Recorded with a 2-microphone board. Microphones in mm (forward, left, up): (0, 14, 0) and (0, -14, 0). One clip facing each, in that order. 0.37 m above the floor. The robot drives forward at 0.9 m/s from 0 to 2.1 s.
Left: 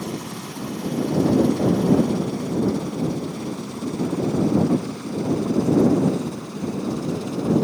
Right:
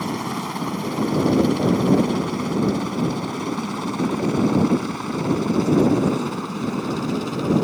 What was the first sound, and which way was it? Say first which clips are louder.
A helicopter: right 5 dB; 65° right (ahead or behind).